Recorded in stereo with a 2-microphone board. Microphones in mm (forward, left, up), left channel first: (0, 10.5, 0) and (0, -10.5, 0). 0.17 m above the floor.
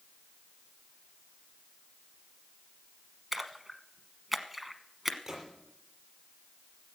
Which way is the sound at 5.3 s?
15° right (ahead or behind).